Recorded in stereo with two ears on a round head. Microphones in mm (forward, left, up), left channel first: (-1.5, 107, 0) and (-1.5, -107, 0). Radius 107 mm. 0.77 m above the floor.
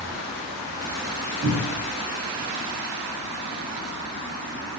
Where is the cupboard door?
45° right (ahead or behind), 1.4 m.